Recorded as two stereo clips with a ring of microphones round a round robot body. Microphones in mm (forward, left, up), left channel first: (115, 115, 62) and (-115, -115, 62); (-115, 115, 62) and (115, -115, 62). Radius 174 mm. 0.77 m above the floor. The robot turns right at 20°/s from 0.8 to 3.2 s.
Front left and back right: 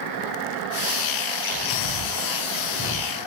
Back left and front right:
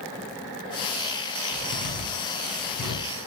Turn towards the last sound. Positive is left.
turn(degrees=90)